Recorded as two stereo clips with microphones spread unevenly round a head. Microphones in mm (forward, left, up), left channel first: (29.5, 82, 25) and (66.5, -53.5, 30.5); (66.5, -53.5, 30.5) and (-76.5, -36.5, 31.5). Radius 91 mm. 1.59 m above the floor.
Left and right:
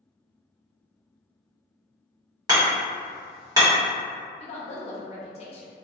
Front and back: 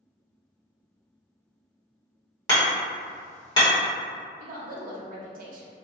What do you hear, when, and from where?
2.5 s hammering: 40° right, 1.4 m
4.4 s a woman speaking: 150° left, 0.5 m